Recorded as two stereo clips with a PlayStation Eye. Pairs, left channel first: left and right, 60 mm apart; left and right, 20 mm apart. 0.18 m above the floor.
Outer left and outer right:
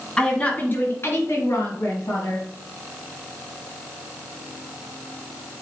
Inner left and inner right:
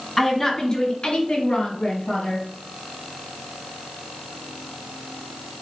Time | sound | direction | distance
0.2 | a woman speaking | 10° left (ahead or behind) | 1.4 m